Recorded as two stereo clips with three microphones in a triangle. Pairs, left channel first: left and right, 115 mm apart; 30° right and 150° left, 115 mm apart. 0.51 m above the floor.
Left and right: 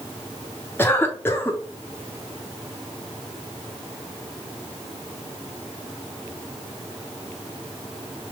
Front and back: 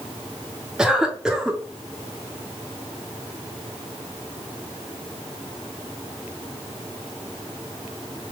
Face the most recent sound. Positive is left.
turn(degrees=75)